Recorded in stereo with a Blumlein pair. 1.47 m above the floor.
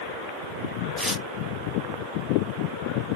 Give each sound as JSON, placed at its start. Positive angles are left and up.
{"t": 1.0, "sound": "tearing paper", "azimuth_deg": 0, "distance_m": 0.6}